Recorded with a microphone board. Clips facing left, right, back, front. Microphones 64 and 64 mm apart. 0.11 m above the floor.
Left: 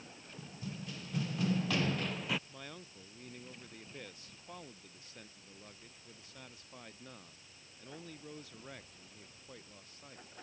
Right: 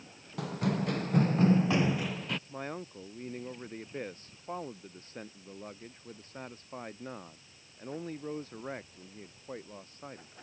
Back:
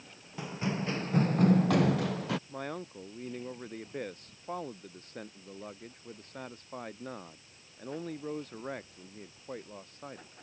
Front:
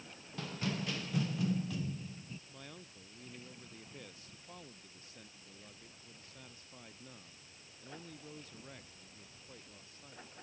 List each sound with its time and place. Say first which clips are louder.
0.4 s running footsteps: right 15 dB, back 5 dB; 105° right; by 2.4 s 175° left
2.5 s a man speaking: right 10 dB, back 14 dB; 140° right